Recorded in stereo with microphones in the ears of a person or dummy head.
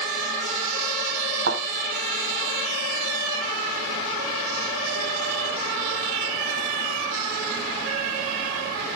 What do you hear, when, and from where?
1.5 s a thud: 60° right (ahead or behind), 3.5 m